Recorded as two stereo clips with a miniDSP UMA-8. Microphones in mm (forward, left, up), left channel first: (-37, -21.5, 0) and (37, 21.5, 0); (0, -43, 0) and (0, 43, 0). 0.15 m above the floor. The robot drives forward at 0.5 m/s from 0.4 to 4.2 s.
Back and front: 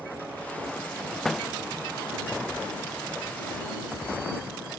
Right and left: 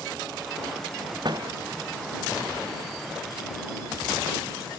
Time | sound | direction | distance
1.2 | a door slam | 125° left | ?